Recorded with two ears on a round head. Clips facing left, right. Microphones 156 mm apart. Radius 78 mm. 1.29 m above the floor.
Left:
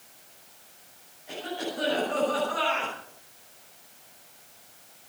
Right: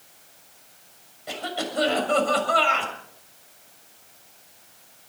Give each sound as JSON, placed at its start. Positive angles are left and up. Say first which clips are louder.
{"t": 1.3, "sound": "a cough", "louder": "right 3 dB", "side_deg": -90, "distance_m": 7.0}